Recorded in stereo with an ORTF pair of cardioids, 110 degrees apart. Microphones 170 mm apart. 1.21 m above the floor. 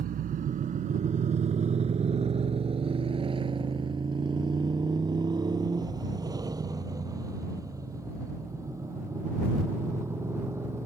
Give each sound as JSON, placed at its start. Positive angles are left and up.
{"t": 0.0, "sound": "a motorcycle", "azimuth_deg": -55}